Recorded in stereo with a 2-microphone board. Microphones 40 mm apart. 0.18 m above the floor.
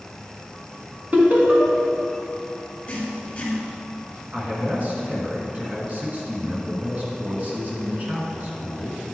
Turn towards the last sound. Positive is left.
turn(degrees=-40)  # may be behind; listen again after turning